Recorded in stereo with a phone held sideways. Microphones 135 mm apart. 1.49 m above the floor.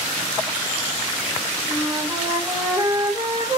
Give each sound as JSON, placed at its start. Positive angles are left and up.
{"t": 1.7, "sound": "a flute", "side_deg": -20, "distance_m": 3.5}